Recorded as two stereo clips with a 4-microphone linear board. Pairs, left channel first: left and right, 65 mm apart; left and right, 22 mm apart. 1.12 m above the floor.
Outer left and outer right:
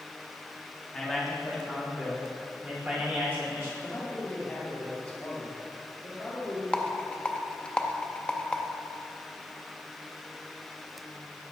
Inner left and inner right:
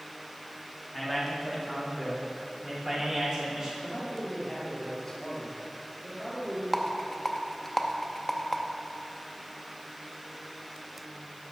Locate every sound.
0.9 s a man speaking: 5° left (ahead or behind), 1.7 m; by 3.7 s 35° right (ahead or behind), 3.5 m
3.8 s a man speaking: 15° left (ahead or behind), 2.5 m
6.7 s a rattle: 15° left (ahead or behind), 0.6 m